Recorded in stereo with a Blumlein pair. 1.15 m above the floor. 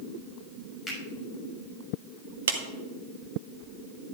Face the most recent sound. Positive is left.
turn(degrees=-60)